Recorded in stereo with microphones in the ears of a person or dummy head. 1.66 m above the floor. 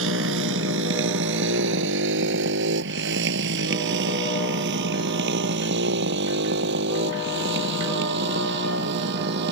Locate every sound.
0.0 s a motorcycle: 75° right (ahead or behind); by 9.5 s 60° right (ahead or behind)